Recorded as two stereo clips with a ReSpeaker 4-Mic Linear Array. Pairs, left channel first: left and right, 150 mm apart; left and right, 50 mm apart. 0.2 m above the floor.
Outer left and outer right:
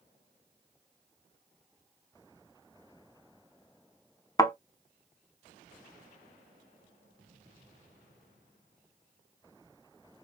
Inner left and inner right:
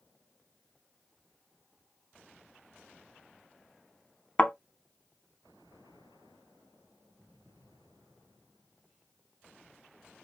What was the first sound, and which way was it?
A thud, 25° left (ahead or behind).